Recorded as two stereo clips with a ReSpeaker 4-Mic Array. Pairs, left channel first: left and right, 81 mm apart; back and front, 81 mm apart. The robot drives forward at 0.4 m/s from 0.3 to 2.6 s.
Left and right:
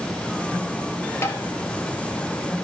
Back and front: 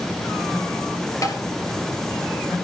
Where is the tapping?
140° left, 1.4 m; by 1.4 s 145° left, 1.4 m.